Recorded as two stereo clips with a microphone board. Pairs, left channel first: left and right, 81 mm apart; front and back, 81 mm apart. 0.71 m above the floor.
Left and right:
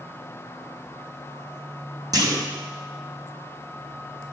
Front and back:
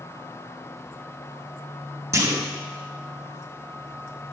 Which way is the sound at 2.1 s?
125° right.